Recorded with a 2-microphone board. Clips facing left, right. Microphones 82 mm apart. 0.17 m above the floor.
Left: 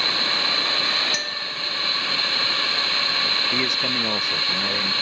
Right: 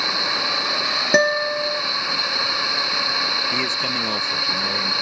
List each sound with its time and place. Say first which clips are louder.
0.0 s a drone: right 2 dB; 15° right (ahead or behind)
1.1 s a guitar: right 14 dB; 65° right (ahead or behind)
3.5 s a man speaking: right 1 dB; 5° left (ahead or behind)